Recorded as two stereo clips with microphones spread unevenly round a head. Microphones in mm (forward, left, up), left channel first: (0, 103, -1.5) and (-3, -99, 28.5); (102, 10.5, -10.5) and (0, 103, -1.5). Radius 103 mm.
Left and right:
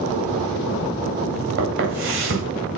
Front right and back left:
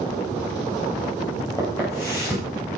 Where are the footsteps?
120° right, 9 m.